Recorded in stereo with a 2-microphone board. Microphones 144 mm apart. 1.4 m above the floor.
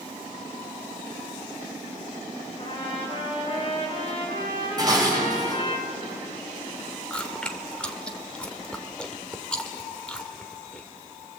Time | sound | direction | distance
2.6 | a trumpet | 35° left (ahead or behind) | 6 m
4.8 | dishes clattering | 30° right (ahead or behind) | 4.5 m
7.1 | chewing | 5° left (ahead or behind) | 1.7 m